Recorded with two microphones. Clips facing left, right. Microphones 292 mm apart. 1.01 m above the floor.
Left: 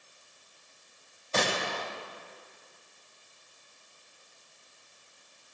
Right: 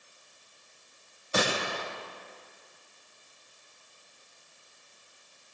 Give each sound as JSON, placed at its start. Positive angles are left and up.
{"t": 1.3, "sound": "a gunshot", "side_deg": -10, "distance_m": 3.0}